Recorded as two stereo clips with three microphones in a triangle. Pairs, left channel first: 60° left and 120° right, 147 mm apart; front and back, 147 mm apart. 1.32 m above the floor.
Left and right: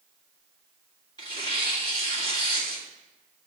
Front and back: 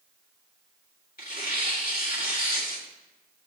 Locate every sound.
1.2 s tearing paper: 5° right, 2.0 m